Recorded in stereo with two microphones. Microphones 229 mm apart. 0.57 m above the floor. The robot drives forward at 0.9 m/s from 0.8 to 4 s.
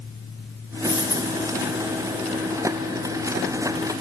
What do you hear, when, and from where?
0.8 s a dropped coin: 50° right (ahead or behind), 3.5 m; by 1.4 s 60° right (ahead or behind), 3.5 m